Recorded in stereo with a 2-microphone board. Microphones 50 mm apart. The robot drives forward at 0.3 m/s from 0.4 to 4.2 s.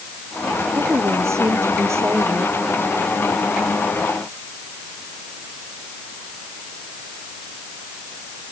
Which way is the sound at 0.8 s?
65° right (ahead or behind).